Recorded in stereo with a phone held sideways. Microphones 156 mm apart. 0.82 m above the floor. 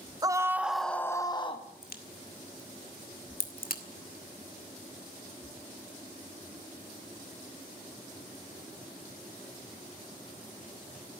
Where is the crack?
75° left (ahead or behind), 1.8 m.